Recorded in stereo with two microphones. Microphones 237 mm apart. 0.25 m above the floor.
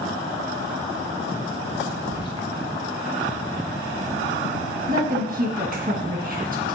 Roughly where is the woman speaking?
Right.